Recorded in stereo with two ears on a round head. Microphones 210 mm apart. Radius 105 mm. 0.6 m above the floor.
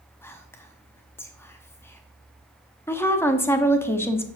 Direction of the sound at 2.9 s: 10° left (ahead or behind).